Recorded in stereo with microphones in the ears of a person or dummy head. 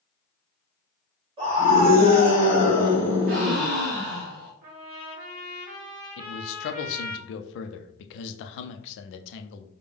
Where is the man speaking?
65° left (ahead or behind), 0.6 m.